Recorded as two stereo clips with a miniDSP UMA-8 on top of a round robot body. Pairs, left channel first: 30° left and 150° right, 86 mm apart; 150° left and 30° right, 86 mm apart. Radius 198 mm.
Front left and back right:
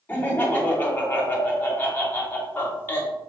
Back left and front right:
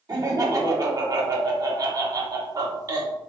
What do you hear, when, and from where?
0.1 s laughter: 30° right, 1.2 m